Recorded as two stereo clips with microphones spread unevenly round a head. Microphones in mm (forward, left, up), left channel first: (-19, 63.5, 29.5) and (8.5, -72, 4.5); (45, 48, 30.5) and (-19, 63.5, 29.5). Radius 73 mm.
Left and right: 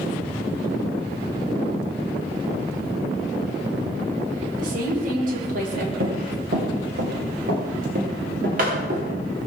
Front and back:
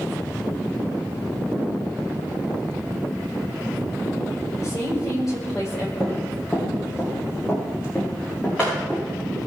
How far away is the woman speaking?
About 5.5 m.